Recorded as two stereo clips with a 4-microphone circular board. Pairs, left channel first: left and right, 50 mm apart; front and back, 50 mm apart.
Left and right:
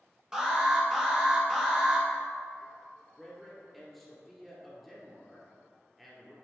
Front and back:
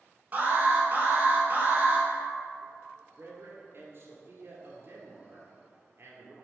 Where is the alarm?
155° right, 1.5 m.